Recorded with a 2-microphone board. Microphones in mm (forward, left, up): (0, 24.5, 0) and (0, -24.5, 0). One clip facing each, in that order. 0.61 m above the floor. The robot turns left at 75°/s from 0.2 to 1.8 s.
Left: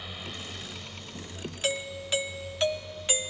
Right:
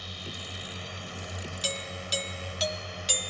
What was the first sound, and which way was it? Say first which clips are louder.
A drone: left 1 dB; 10° left.